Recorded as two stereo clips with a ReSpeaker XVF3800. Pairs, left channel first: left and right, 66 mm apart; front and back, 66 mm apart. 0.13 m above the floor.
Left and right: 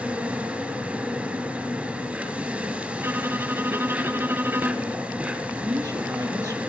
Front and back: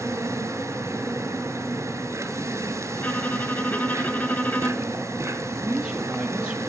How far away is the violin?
About 0.7 m.